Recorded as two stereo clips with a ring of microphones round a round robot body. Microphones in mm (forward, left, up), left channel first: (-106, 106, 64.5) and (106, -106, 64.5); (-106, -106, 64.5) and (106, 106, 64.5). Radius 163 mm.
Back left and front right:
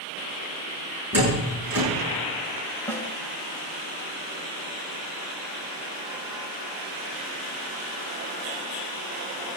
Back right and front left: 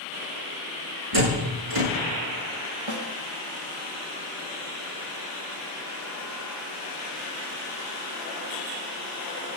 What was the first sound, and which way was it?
A door slam, 40° left.